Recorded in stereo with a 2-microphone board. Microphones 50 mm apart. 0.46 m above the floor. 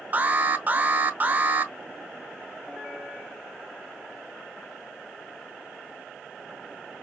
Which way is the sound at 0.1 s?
35° right (ahead or behind).